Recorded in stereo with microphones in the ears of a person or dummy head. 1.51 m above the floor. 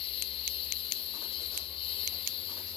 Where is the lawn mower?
30° left (ahead or behind).